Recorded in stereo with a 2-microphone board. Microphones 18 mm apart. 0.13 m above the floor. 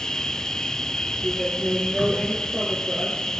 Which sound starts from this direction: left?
An insect, at 0.0 s.